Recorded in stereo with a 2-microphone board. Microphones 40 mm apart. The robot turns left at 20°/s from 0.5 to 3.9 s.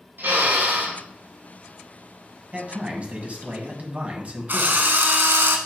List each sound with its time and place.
0.2 s a drill: 60° right (ahead or behind), 3.5 m; by 1.0 s 65° right (ahead or behind), 3.5 m
2.5 s a man speaking: 35° right (ahead or behind), 1.9 m; by 4.9 s 40° right (ahead or behind), 1.9 m
4.5 s a drill: 55° right (ahead or behind), 1.1 m